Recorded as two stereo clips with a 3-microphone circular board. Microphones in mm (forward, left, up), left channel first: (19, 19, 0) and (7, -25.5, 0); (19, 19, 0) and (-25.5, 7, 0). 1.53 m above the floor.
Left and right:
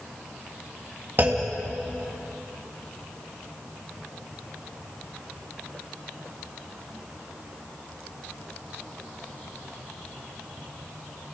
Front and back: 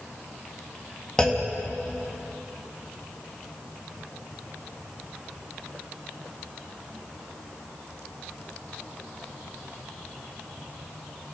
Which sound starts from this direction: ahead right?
A clunk, at 1.2 s.